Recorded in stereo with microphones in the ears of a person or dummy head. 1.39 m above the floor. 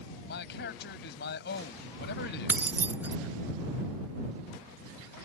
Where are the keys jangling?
10° right (ahead or behind).